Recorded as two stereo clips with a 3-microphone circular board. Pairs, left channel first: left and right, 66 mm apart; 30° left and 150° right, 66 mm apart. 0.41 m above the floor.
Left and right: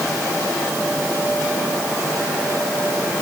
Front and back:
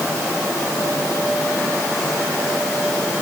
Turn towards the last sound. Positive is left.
No sound to turn to.